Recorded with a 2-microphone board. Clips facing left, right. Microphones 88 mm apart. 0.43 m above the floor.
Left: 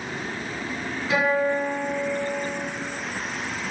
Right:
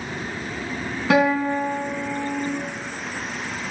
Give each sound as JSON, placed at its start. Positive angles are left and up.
{"t": 1.1, "sound": "a guitar", "side_deg": -75, "distance_m": 3.0}